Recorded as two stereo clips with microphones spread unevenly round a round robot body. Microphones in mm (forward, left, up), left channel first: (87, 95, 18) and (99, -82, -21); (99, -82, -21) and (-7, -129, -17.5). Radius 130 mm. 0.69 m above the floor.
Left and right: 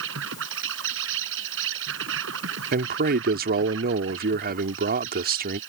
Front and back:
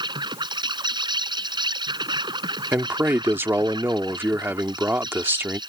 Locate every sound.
0.0 s an insect: 105° right
2.7 s a man speaking: 85° right